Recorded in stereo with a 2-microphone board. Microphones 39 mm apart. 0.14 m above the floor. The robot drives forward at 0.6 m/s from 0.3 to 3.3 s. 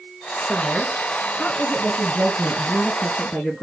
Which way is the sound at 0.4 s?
35° left (ahead or behind).